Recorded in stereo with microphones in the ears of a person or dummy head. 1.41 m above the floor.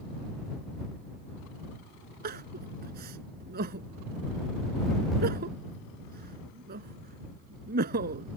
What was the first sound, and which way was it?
Crying, 45° right (ahead or behind).